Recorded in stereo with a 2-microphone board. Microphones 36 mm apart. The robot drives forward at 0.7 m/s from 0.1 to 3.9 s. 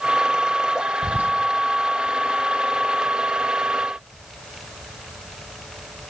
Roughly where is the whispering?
Right.